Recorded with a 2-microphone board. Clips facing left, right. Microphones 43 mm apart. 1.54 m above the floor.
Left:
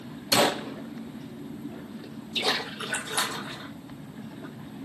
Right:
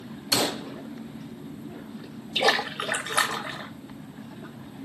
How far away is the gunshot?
About 0.6 m.